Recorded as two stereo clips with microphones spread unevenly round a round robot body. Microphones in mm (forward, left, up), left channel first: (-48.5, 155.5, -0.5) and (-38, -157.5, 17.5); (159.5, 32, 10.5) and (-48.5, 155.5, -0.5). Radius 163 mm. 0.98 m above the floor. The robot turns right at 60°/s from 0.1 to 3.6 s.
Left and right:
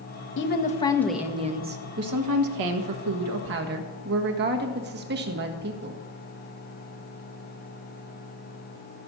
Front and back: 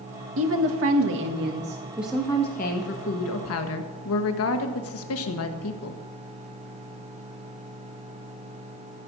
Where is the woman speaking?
135° left, 1.4 m; by 6.0 s 30° right, 1.4 m.